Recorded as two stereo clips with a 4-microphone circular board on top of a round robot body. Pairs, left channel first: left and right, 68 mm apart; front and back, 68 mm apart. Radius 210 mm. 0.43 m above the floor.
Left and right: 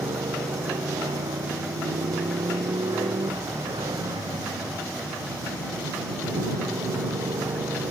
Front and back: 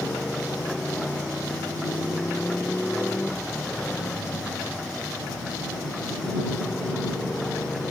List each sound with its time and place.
0.0 s a motorcycle: 80° right